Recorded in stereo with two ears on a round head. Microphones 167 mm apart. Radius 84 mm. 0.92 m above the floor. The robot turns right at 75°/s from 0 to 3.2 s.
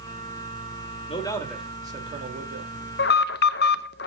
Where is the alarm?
55° left (ahead or behind), 0.6 m; by 4.1 s 60° left (ahead or behind), 0.6 m.